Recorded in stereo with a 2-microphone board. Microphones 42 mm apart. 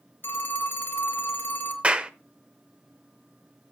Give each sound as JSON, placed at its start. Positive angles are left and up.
{"t": 0.2, "sound": "a phone ringing", "side_deg": 65, "distance_m": 2.0}
{"t": 1.8, "sound": "a clap", "side_deg": -25, "distance_m": 0.8}